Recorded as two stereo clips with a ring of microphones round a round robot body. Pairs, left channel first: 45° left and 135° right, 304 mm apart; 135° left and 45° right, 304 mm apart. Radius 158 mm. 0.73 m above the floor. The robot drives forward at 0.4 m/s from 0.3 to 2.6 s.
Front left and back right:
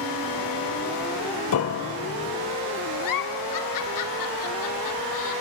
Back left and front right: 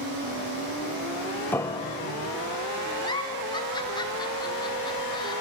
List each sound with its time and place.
1.5 s a piano: 55° left, 0.6 m; by 2.3 s 105° left, 0.5 m
3.0 s a giggle: 60° left, 1.7 m